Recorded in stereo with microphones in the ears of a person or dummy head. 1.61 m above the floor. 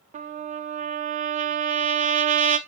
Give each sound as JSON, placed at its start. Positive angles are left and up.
{"t": 0.1, "sound": "a trumpet", "side_deg": -40, "distance_m": 0.5}